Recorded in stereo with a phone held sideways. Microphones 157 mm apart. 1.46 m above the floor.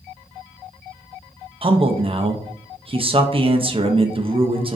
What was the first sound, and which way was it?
A man speaking, 35° right (ahead or behind).